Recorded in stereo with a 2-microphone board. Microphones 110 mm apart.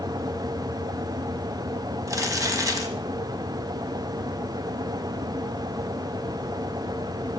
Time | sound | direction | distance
2.1 | crumpling | 35° right (ahead or behind) | 1.5 m